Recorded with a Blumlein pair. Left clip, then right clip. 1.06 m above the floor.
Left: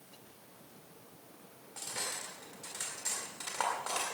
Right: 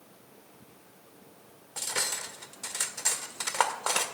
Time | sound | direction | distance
1.8 | cutlery clinking | 60° right | 1.9 m